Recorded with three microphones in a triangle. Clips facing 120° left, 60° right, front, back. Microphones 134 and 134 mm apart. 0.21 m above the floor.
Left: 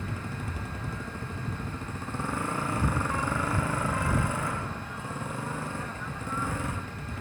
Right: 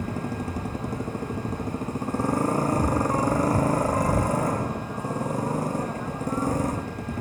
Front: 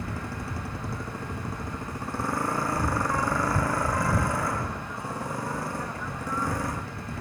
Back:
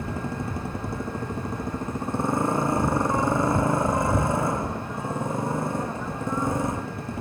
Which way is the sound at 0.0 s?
110° right.